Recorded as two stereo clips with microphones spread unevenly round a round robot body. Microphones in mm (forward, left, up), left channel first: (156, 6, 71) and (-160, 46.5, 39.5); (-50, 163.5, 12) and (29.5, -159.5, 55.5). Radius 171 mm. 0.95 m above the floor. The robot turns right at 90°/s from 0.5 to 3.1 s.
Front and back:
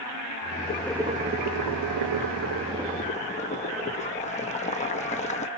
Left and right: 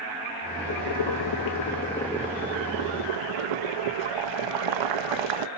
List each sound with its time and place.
0.7 s boiling: 65° left, 0.9 m; by 5.5 s 80° right, 0.9 m